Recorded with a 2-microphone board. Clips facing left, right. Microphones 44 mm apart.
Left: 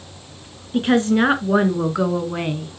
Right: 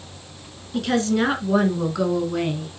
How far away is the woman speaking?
About 2 m.